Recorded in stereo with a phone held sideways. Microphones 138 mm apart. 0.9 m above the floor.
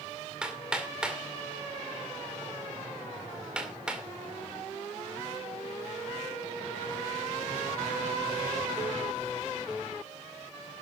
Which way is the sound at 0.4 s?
5° right (ahead or behind).